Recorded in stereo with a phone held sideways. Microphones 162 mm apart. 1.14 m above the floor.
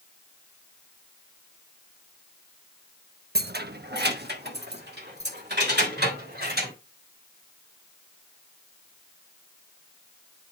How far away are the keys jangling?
About 0.6 m.